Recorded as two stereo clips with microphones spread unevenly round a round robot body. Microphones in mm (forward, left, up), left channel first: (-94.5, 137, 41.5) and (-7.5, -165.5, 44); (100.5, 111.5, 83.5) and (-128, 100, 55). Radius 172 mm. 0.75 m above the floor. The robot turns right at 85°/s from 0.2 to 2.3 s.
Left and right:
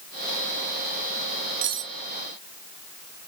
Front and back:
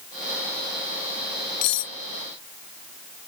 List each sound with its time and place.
1.6 s cutlery clinking: 20° right; by 1.9 s 10° left